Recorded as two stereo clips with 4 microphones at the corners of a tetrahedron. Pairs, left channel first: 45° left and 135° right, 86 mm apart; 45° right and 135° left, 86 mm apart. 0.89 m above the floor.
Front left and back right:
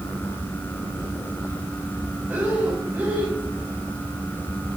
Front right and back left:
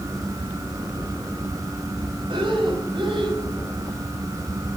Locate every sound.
2.3 s breathing: 155° left, 4 m